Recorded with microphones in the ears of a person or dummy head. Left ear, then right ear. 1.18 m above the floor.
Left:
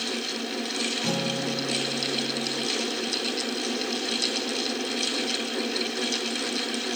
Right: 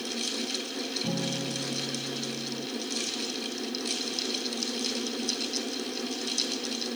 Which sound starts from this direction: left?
A guitar, at 1.0 s.